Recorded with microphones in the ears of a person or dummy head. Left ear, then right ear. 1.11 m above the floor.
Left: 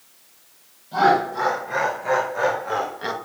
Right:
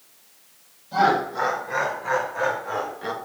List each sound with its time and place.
0.9 s laughter: 5° right (ahead or behind), 4.5 m; by 3.1 s 25° left (ahead or behind), 1.2 m